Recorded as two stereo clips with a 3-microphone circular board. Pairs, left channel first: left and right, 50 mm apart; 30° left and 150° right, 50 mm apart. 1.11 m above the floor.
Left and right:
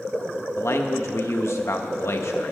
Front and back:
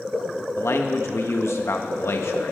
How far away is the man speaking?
About 1.3 m.